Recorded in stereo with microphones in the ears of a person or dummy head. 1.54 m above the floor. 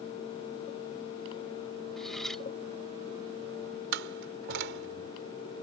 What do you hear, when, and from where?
2.0 s cutlery clinking: centre (ahead or behind)
3.9 s a door slam: 65° right (ahead or behind)